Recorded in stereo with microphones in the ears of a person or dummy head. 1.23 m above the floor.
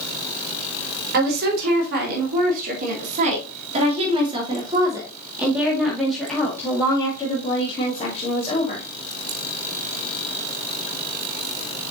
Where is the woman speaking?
55° right (ahead or behind), 3.5 m; by 8.8 s 40° left (ahead or behind), 2.5 m.